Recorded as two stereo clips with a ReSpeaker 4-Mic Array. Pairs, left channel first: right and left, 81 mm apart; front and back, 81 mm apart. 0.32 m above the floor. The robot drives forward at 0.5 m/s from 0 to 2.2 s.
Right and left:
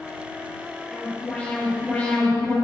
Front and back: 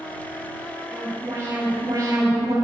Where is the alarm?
150° right, 2.5 m; by 2.5 s 160° right, 3 m.